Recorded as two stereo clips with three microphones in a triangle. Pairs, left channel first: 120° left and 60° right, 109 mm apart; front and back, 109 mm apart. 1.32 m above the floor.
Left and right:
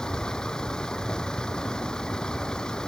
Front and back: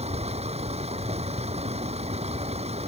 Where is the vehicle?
155° right.